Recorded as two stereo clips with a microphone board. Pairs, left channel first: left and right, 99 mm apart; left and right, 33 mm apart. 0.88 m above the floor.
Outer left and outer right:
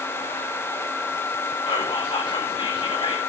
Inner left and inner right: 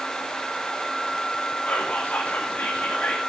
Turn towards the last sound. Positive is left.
turn(degrees=60)  # may be behind; listen again after turning